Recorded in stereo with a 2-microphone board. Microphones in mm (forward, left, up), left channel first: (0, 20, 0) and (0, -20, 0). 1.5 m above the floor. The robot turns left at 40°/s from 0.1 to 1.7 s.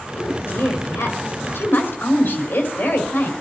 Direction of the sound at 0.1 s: 115° left.